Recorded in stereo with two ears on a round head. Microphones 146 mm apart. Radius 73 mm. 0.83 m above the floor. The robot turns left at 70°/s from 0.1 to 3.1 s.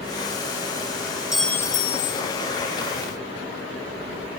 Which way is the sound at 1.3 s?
175° right.